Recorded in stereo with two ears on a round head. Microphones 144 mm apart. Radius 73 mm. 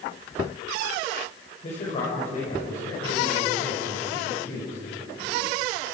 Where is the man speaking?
40° left (ahead or behind), 5.5 m; by 4.8 s 65° left (ahead or behind), 7.5 m.